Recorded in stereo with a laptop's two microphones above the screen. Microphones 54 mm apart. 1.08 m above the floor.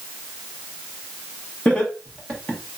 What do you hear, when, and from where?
1.6 s laughter: 20° left (ahead or behind), 1.0 m